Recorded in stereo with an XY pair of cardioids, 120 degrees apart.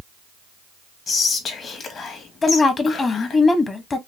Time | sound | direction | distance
1.1 | whispering | 45° left | 1.7 m
2.4 | a woman speaking | 30° left | 1.2 m